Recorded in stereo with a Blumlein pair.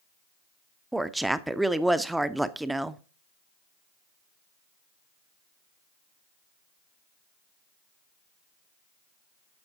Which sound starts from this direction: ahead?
A woman speaking, at 0.9 s.